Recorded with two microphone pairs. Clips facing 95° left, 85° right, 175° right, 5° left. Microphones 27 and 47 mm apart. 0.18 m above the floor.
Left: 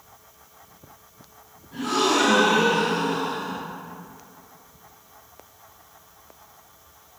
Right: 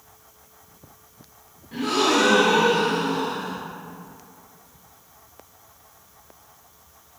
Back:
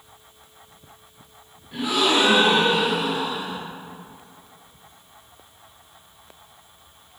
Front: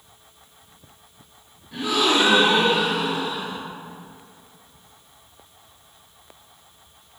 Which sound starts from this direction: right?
A gasp, at 1.7 s.